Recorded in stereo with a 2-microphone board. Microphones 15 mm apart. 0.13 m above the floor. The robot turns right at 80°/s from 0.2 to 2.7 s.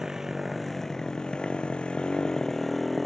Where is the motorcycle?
25° right; by 3.1 s 175° left.